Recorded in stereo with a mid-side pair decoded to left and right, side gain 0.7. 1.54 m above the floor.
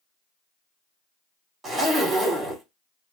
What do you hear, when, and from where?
1.6 s a zipper: 25° right, 1.3 m